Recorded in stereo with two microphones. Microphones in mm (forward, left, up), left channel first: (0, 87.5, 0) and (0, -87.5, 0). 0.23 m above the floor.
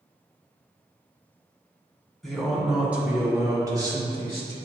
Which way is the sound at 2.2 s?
Centre (ahead or behind).